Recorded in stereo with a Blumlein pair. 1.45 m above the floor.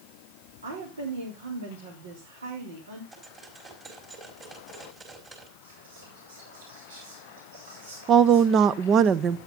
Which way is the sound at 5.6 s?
65° right.